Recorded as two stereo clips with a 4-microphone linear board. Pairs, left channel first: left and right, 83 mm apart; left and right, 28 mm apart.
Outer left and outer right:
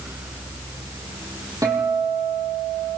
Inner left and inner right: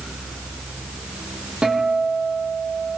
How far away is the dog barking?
I don't hear a dog barking.